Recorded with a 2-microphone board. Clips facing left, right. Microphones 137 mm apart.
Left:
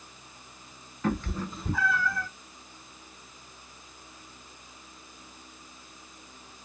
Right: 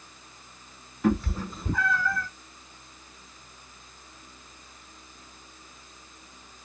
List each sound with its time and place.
1.0 s a cat meowing: 10° right (ahead or behind), 1.2 m; by 2.3 s 20° left (ahead or behind), 0.9 m